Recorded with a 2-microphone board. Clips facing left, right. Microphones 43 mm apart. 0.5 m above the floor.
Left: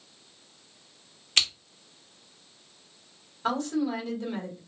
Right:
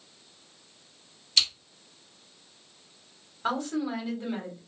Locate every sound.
1.4 s scissors: 45° left (ahead or behind), 0.8 m
3.4 s a woman speaking: 10° right (ahead or behind), 1.5 m